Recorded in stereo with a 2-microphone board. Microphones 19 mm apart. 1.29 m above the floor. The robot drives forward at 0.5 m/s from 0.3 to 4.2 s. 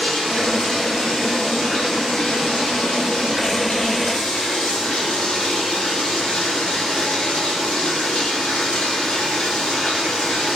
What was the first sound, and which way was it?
Running water, 55° left (ahead or behind).